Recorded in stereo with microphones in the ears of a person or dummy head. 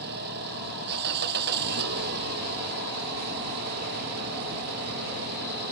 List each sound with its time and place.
0.0 s an engine running: 60° right (ahead or behind)